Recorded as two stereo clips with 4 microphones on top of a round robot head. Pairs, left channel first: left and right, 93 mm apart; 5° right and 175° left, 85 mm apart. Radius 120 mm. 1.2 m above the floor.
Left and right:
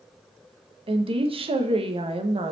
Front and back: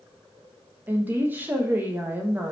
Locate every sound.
0.9 s a woman speaking: 110° right, 1.1 m